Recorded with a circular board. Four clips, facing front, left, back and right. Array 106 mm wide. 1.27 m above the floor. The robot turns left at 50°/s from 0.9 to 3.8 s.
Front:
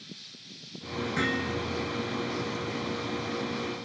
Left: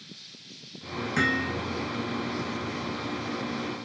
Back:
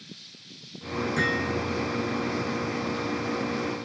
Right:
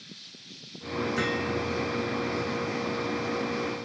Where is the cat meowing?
No cat meowing in this recording.